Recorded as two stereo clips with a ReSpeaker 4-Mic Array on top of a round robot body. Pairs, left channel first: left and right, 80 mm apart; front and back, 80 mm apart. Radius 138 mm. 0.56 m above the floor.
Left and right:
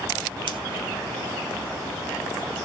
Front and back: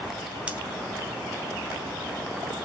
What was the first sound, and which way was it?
Scissors, 105° right.